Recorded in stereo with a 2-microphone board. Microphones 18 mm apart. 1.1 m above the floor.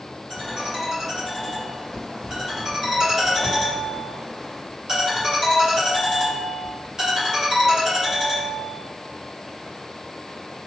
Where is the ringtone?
35° right (ahead or behind), 1.9 m.